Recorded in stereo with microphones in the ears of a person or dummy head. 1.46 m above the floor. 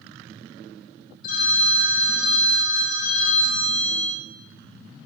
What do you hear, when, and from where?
1.2 s a phone ringing: 55° left (ahead or behind), 2.5 m